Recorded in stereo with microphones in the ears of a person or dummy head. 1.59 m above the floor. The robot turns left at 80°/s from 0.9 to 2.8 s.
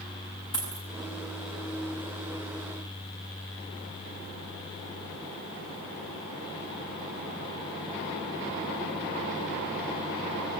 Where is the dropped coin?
20° left (ahead or behind), 8 m.